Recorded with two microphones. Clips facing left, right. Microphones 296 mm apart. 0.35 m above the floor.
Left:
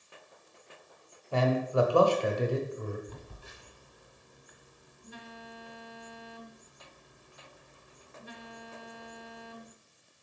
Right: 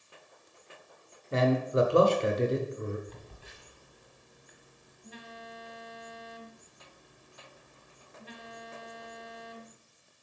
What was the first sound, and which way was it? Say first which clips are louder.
A man speaking: right 1 dB; 25° right (ahead or behind).